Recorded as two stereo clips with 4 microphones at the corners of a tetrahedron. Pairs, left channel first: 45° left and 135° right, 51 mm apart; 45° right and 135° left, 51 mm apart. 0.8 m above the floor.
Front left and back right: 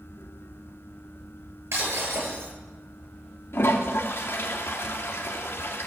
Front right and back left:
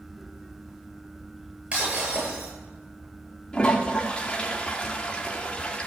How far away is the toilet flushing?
About 1.8 m.